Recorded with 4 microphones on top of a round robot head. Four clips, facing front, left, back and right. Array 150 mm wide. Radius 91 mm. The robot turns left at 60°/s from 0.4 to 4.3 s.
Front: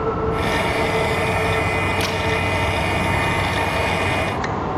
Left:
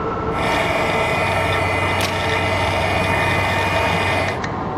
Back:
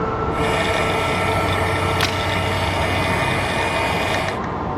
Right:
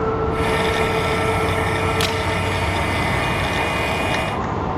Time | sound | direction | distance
2.0 | a camera shutter | 170° right | 2.5 m